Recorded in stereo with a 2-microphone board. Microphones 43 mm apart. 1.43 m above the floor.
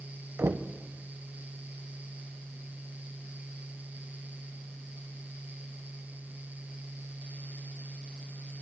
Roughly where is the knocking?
Right.